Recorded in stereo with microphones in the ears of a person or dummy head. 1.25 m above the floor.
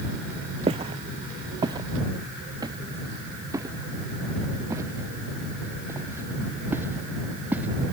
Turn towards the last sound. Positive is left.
turn(degrees=-10)  # may be behind; listen again after turning